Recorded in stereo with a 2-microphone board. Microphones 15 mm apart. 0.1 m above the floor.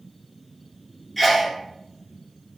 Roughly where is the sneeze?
Centre.